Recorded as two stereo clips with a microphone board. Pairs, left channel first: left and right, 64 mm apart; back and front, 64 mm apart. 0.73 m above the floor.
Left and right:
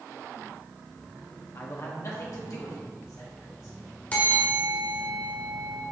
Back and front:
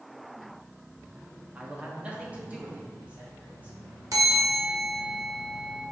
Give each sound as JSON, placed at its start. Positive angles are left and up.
{"t": 1.6, "sound": "a man speaking", "azimuth_deg": 65, "distance_m": 1.2}
{"t": 4.1, "sound": "a bell", "azimuth_deg": 25, "distance_m": 1.6}